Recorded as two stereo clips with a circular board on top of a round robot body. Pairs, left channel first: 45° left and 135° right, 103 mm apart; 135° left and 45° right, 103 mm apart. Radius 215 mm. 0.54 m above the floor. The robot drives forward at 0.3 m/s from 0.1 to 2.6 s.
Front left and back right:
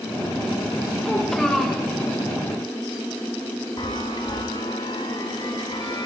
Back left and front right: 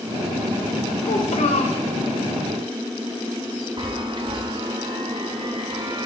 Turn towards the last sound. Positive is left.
turn(degrees=-5)